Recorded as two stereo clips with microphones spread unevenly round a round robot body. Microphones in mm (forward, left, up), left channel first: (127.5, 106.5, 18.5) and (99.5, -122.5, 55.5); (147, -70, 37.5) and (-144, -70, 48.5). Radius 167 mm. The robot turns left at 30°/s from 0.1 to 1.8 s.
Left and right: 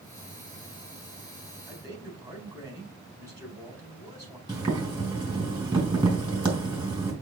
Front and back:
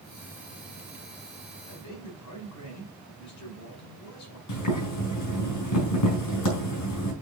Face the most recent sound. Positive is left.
turn(degrees=-20)